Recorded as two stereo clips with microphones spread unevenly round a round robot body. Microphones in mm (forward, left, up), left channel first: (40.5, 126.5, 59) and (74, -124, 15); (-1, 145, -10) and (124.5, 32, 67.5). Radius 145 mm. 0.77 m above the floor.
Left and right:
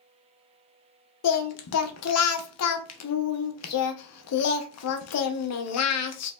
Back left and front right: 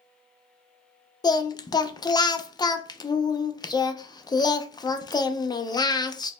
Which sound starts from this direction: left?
Singing, at 1.2 s.